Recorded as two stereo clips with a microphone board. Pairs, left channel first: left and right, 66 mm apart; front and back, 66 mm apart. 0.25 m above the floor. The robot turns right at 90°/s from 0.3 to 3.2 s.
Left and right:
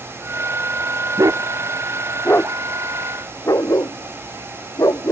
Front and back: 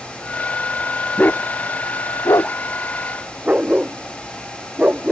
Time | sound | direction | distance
1.2 | a dog barking | 65° right | ?